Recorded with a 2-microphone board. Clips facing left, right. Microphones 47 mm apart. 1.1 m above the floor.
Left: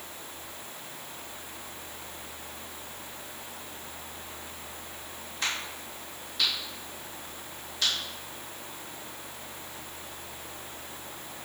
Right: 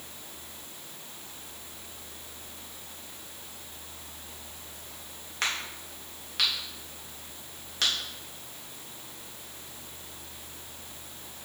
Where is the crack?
70° right (ahead or behind), 2.0 m.